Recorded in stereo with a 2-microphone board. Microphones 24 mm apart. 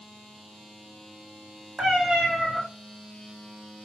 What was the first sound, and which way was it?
A cat meowing, 40° right (ahead or behind).